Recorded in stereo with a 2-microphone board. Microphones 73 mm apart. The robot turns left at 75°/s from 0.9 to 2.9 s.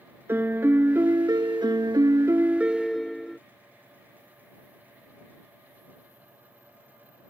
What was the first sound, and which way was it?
A piano, 30° right.